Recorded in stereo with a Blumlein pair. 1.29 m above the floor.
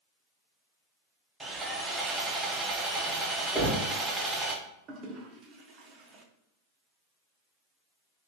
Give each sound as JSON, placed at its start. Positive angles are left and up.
{"t": 1.4, "sound": "sawing", "azimuth_deg": -15, "distance_m": 0.6}
{"t": 3.5, "sound": "knocking", "azimuth_deg": 0, "distance_m": 1.1}
{"t": 4.9, "sound": "a toilet flushing", "azimuth_deg": -30, "distance_m": 0.6}